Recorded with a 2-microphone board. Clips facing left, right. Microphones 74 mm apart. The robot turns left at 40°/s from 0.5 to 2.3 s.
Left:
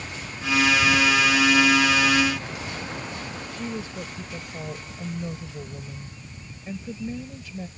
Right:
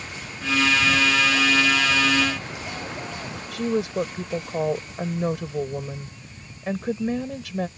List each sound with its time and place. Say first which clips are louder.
0.7 s a bird: left 1 dB; straight ahead; by 3.4 s 65° right
3.5 s a woman speaking: right 11 dB; 80° right